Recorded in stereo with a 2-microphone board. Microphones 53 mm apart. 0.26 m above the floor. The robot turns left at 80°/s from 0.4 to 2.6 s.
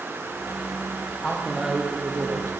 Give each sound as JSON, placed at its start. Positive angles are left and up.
{"t": 1.2, "sound": "a man speaking", "azimuth_deg": 25, "distance_m": 9.0}